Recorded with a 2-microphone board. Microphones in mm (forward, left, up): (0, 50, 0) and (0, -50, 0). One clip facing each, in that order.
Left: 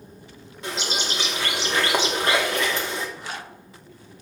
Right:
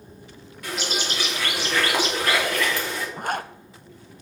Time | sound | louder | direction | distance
0.6 | a bird | even | 25° left (ahead or behind) | 2.5 m
3.2 | a zipper | right 8 dB | 50° right (ahead or behind) | 0.5 m